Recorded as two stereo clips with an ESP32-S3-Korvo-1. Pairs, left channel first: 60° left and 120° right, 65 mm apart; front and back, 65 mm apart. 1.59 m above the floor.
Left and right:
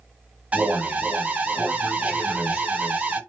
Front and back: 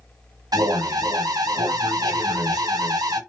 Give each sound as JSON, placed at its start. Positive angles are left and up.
{"t": 0.5, "sound": "an alarm", "azimuth_deg": 170, "distance_m": 0.9}